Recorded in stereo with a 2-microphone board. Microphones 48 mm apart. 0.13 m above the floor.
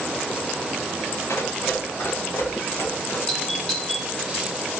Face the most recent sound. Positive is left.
turn(degrees=10)  # may be behind; listen again after turning